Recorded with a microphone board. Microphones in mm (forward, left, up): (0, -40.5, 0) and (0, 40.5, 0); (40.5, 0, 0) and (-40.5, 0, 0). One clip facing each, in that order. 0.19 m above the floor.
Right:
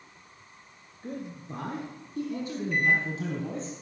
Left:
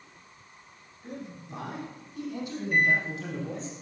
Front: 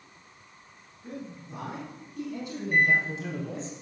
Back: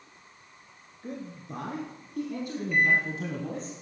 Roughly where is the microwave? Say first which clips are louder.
Left 1 dB, front 1 dB; ahead left.